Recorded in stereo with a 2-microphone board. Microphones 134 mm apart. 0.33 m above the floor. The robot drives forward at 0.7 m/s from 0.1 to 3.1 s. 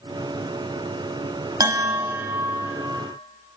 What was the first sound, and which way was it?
A bell, 25° right (ahead or behind).